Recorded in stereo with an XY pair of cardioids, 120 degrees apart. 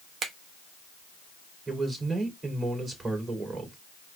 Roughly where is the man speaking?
Ahead right.